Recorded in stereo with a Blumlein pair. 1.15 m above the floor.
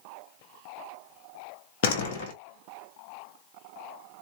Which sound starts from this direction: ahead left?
A door slam, at 1.8 s.